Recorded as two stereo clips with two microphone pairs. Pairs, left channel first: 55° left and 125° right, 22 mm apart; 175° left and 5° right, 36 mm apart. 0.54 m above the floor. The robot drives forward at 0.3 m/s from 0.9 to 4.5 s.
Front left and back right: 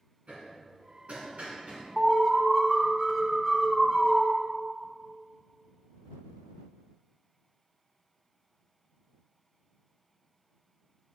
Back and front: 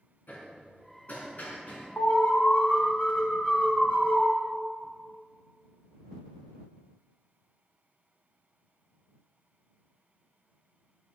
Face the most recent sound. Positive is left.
turn(degrees=160)